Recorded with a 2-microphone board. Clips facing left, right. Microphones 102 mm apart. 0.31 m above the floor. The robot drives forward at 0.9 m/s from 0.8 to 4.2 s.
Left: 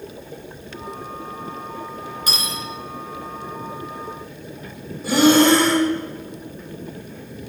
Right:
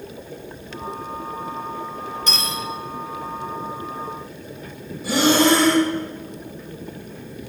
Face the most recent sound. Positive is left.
turn(degrees=0)  # may be behind; listen again after turning